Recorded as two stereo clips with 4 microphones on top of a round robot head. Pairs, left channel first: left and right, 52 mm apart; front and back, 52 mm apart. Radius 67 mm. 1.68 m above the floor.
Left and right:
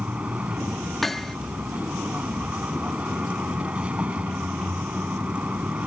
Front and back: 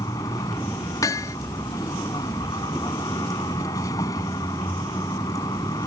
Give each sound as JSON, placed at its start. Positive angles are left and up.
{"t": 0.0, "sound": "a vehicle", "azimuth_deg": -15}
{"t": 1.0, "sound": "hammering", "azimuth_deg": 5}